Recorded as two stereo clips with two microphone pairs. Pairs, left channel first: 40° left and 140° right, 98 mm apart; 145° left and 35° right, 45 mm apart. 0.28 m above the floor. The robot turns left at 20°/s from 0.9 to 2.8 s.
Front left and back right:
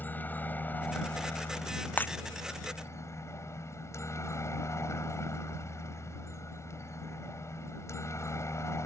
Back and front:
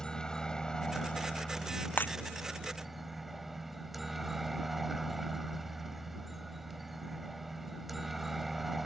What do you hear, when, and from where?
0.0 s a helicopter: 90° left; by 8.9 s 50° left
2.0 s breaking glass: 110° left; by 2.1 s 105° left